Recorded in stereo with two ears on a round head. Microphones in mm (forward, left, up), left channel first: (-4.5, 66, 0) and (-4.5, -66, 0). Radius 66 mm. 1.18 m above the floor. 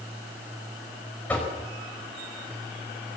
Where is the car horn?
I don't hear a car horn.